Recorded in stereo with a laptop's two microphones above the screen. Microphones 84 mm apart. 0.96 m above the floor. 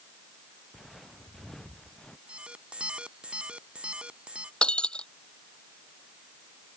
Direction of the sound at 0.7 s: Centre (ahead or behind).